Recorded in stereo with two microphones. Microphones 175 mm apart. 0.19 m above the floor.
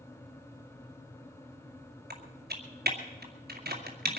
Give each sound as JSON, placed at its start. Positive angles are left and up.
{"t": 2.1, "sound": "typing on a keyboard", "side_deg": -65, "distance_m": 2.0}